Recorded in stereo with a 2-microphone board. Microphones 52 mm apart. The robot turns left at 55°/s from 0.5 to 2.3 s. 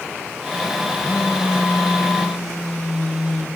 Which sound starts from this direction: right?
A phone buzzing, at 1.0 s.